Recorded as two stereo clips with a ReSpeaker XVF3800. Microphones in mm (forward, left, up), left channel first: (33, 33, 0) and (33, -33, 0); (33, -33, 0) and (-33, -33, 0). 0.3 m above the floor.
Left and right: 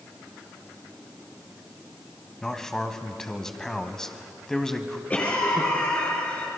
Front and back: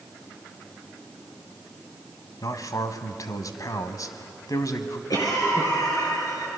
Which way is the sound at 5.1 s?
20° left.